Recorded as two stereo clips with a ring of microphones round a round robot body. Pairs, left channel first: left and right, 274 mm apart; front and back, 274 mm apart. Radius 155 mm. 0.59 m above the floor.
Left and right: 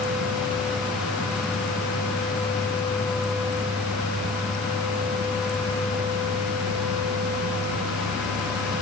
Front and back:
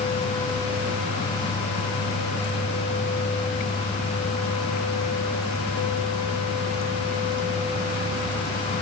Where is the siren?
No siren in this recording.